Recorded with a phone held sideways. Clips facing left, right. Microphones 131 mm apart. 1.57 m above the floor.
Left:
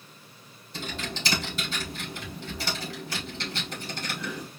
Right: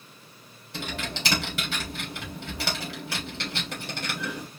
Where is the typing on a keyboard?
75° right (ahead or behind), 3.5 m.